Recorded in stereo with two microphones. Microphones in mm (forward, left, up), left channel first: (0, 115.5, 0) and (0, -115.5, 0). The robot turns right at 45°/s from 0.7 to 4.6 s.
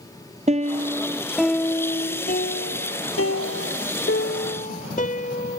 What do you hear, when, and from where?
0.5 s a piano: 30° right; by 5.6 s 145° left